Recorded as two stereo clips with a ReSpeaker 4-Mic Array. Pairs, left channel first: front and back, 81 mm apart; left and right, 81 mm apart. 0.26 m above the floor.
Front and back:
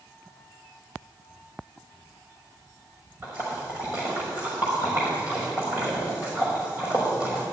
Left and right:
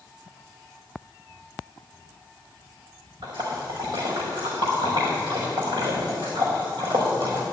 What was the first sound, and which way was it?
A splash, 120° right.